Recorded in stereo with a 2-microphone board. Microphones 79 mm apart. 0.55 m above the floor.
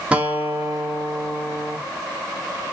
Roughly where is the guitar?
Centre.